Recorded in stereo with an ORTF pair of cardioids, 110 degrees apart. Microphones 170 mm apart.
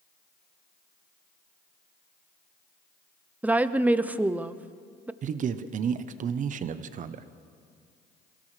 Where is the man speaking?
50° right, 0.8 m.